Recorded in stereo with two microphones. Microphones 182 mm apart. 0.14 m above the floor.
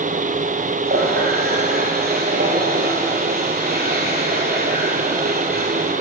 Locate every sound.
0.9 s a running tap: 60° right (ahead or behind), 3 m